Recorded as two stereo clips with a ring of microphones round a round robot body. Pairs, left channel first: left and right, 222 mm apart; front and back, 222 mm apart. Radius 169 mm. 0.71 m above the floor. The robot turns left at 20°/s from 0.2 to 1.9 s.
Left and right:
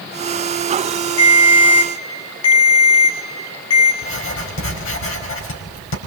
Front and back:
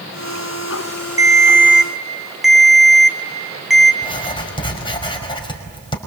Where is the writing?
70° left, 5 m.